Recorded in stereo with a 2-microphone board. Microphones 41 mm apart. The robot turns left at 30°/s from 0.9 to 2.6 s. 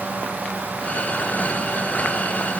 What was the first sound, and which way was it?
Only background noise.